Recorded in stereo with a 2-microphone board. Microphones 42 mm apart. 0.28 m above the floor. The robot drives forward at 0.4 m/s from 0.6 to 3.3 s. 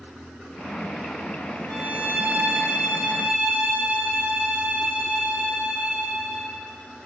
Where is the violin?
45° right (ahead or behind), 1.8 m; by 6.5 s 35° right (ahead or behind), 2 m.